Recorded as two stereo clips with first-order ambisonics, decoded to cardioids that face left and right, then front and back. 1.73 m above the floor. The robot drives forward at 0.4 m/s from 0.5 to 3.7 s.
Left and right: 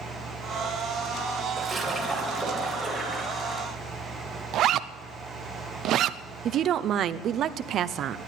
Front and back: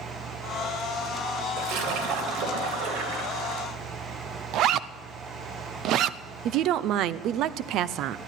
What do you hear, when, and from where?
1.6 s a splash: straight behind, 3 m
4.5 s a zipper: 135° right, 0.5 m
6.5 s a woman speaking: 140° right, 0.6 m